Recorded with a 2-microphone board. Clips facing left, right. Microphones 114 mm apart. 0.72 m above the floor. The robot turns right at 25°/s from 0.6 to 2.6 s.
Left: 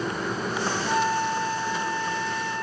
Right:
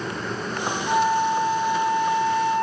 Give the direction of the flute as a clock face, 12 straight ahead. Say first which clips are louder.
Right 6 dB; 5 o'clock.